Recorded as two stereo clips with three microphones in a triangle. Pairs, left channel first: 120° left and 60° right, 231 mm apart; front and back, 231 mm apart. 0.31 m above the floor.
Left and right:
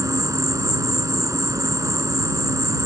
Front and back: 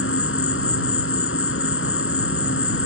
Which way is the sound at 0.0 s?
15° left.